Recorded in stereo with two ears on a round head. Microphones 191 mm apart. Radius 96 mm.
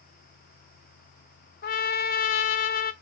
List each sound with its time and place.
1.6 s a trumpet: 45° left (ahead or behind), 0.6 m